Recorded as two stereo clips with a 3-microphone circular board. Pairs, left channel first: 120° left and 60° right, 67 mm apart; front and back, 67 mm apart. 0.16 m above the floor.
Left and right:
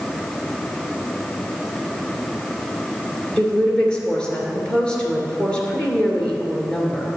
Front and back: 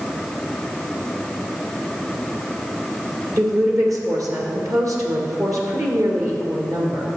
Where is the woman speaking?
165° right, 2.5 m.